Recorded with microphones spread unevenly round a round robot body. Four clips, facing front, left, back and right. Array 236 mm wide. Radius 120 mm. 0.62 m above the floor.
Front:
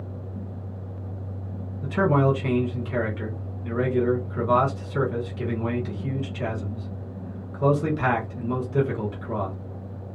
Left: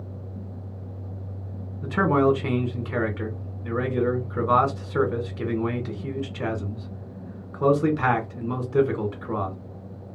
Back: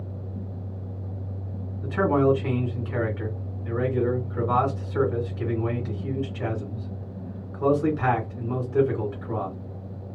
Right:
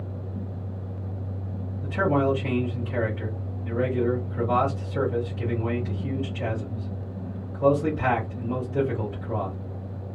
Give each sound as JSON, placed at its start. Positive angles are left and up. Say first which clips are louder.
{"t": 1.8, "sound": "a man speaking", "louder": "left 3 dB, even", "azimuth_deg": 90, "distance_m": 1.5}